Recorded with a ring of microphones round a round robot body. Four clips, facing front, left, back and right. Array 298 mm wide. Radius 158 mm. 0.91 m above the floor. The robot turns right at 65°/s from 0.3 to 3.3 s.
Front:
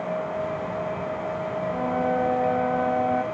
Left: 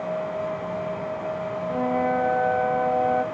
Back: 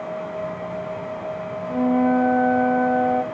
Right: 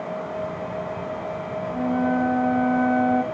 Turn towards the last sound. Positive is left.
turn(degrees=-130)